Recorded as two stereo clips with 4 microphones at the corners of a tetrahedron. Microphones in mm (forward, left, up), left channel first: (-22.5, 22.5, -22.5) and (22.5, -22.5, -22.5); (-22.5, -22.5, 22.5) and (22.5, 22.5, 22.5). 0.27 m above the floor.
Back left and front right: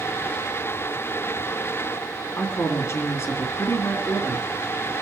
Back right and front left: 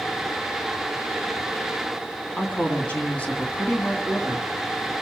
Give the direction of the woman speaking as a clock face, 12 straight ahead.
7 o'clock.